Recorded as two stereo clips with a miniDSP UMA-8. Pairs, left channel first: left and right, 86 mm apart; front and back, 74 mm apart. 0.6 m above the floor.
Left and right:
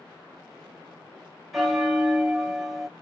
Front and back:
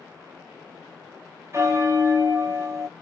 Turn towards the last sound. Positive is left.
turn(degrees=180)